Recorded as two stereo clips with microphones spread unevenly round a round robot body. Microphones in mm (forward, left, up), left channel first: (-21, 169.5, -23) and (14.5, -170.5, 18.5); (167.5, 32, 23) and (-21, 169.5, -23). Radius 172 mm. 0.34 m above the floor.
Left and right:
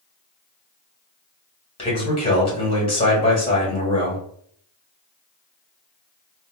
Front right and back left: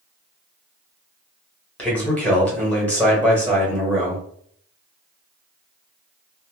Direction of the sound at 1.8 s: 65° left.